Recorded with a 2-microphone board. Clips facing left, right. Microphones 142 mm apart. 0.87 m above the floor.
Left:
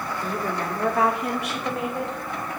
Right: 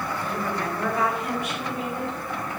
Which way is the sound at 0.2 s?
40° left (ahead or behind).